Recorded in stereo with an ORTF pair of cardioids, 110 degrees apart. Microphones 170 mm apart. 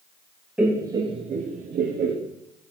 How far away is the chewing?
I don't hear chewing.